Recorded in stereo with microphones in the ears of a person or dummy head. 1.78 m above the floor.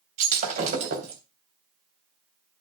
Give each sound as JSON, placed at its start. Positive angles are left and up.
{"t": 0.2, "sound": "breaking glass", "side_deg": -40, "distance_m": 3.0}